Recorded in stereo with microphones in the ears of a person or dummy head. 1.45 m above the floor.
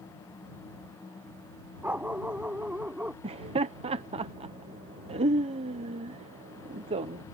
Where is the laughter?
30° right (ahead or behind).